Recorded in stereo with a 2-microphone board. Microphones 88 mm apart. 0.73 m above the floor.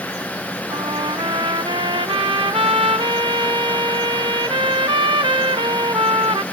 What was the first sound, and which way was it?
A trumpet, 85° right.